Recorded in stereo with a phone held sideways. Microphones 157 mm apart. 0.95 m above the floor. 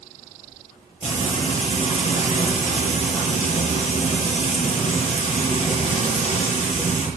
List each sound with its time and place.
1.0 s frying: 45° left (ahead or behind), 9 m